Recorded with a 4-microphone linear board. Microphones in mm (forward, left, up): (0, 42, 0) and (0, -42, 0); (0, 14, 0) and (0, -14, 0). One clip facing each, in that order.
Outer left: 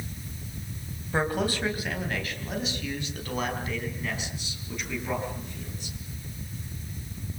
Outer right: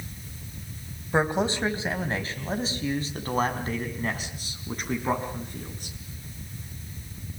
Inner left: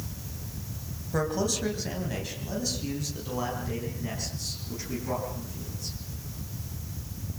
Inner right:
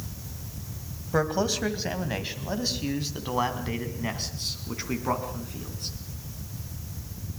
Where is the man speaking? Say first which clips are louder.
Outer right 3 dB, inner right 3 dB; 25° right (ahead or behind), 2.5 m; by 6.0 s 50° right (ahead or behind), 5 m.